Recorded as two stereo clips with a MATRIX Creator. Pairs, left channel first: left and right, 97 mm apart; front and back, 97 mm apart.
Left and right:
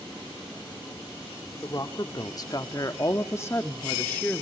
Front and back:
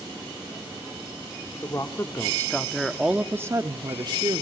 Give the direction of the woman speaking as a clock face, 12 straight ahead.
11 o'clock.